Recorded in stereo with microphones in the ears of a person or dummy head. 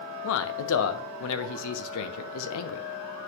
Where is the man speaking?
70° left (ahead or behind), 0.9 m.